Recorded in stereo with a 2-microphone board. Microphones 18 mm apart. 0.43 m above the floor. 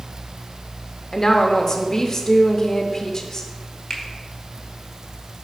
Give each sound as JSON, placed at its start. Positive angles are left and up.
{"t": 1.1, "sound": "a woman speaking", "side_deg": 30, "distance_m": 0.8}
{"t": 3.9, "sound": "a finger snap", "side_deg": 40, "distance_m": 1.4}